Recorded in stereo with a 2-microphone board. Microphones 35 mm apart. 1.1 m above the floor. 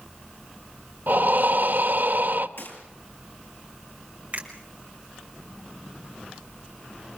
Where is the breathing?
60° right (ahead or behind), 1.4 m.